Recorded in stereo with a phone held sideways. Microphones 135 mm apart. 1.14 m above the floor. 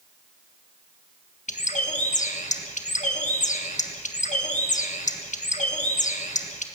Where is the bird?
65° left (ahead or behind), 1.5 m.